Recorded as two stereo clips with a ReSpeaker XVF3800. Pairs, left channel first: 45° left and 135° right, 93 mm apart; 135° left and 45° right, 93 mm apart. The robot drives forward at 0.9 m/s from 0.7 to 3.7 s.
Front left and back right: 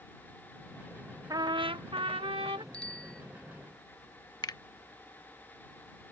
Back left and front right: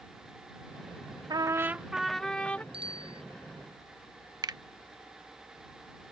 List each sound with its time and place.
1.3 s a trumpet: 85° right; by 2.6 s 150° right
2.7 s a bicycle bell: 35° right
4.4 s a finger snap: straight ahead